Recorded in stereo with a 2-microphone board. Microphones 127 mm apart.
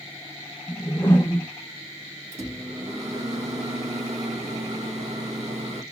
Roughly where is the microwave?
Right.